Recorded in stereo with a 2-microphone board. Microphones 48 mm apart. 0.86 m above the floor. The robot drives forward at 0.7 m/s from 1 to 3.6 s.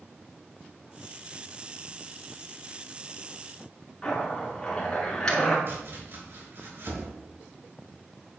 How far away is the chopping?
About 4 m.